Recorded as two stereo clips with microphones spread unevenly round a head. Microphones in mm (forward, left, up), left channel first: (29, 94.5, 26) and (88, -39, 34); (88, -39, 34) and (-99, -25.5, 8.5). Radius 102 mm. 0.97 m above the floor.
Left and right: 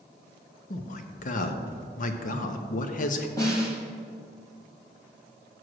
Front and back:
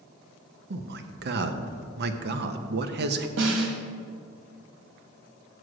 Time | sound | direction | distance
0.7 | a man speaking | 150° left | 0.6 m
3.4 | a snare drum | 170° right | 1.2 m